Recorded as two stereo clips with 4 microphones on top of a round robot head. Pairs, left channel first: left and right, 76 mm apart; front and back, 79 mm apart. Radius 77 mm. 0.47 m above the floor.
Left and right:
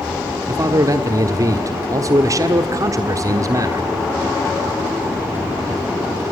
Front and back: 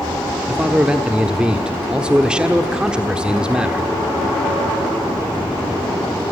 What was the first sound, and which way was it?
A man speaking, 100° right.